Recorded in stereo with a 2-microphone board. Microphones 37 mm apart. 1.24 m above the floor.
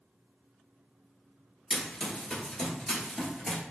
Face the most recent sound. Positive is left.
turn(degrees=10)  # may be behind; listen again after turning